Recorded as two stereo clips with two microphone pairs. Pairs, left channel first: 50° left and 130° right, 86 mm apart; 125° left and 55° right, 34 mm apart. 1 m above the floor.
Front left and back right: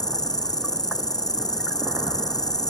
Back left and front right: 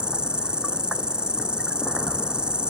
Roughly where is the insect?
Ahead.